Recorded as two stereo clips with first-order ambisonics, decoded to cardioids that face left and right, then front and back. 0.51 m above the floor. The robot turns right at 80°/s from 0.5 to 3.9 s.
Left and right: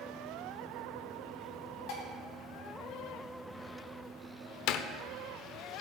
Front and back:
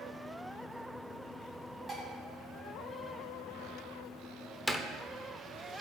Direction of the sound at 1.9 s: 105° left.